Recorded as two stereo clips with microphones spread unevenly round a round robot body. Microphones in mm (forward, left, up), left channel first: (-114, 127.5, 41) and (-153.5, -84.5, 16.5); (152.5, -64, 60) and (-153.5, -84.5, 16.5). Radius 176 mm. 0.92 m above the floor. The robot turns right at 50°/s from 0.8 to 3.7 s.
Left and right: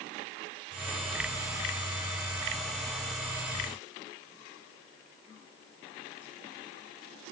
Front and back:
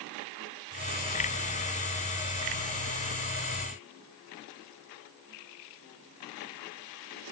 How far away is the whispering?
I don't hear whispering.